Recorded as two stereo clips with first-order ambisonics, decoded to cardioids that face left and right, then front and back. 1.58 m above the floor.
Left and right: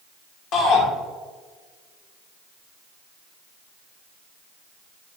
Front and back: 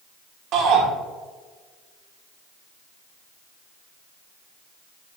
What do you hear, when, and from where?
0.5 s a shout: 135° left, 2 m